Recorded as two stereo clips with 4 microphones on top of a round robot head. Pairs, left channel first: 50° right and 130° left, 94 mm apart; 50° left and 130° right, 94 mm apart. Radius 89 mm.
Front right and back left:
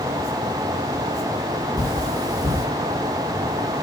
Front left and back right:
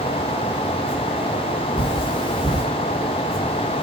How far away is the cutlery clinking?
About 7.5 m.